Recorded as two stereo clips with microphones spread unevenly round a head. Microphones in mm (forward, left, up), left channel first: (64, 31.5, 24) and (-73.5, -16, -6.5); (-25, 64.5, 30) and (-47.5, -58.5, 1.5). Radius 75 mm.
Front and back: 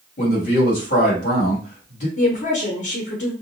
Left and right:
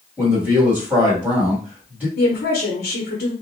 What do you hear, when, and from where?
0.2 s a man speaking: 25° right, 1.6 m
2.2 s a woman speaking: 55° left, 0.7 m